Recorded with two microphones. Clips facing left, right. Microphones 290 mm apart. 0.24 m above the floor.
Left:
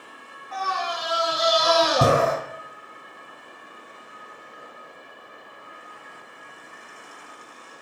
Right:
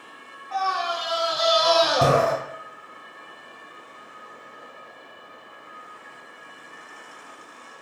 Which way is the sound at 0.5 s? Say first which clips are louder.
Right 2 dB; 25° left (ahead or behind).